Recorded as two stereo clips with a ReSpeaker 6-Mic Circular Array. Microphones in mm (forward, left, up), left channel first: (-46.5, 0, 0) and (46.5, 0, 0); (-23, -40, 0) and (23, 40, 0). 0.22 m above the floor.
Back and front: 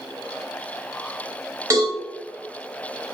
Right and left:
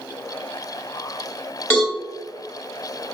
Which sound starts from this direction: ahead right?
A cowbell, at 1.7 s.